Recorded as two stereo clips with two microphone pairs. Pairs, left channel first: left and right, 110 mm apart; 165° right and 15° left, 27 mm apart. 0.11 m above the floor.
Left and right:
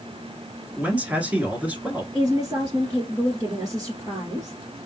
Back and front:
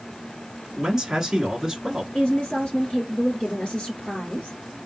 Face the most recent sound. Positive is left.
turn(degrees=-130)